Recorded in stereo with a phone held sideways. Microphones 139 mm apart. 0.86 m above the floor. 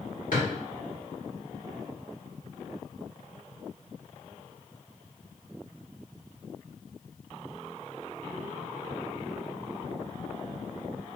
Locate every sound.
0.3 s a drawer: 90° left, 1.5 m